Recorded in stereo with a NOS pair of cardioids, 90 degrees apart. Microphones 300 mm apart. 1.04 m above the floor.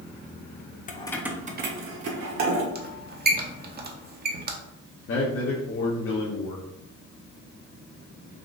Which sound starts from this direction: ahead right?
A squeak, at 2.8 s.